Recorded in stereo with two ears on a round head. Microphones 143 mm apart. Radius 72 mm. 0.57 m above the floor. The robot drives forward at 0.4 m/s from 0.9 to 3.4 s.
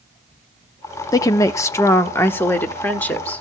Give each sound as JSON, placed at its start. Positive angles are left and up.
{"t": 1.1, "sound": "a woman speaking", "side_deg": 20, "distance_m": 0.6}